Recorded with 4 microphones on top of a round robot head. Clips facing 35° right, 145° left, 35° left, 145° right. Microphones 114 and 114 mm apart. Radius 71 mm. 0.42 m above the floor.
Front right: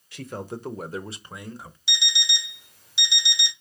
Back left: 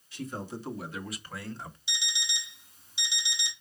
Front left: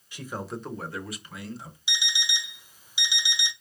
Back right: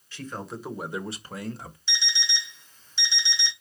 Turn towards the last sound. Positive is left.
turn(degrees=-45)